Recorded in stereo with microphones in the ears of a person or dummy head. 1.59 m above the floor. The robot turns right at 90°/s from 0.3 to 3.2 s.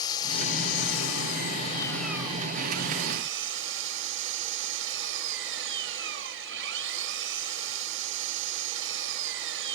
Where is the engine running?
25° left; by 9.8 s 75° right.